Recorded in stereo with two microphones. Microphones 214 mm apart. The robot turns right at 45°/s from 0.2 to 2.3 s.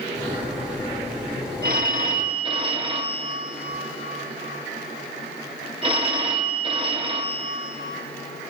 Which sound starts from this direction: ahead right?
A phone ringing, at 1.6 s.